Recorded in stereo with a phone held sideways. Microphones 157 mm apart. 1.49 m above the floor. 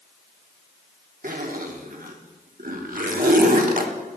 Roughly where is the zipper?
Right.